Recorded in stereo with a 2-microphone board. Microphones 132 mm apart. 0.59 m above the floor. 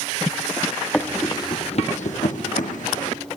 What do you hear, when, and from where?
0.9 s running footsteps: 10° left (ahead or behind), 1.5 m; by 3.2 s 70° left (ahead or behind), 2.5 m